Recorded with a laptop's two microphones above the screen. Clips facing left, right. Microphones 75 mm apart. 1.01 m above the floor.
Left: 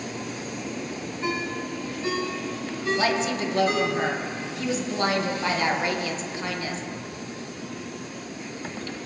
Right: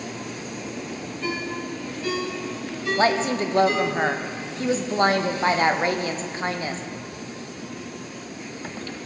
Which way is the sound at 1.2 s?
30° left (ahead or behind).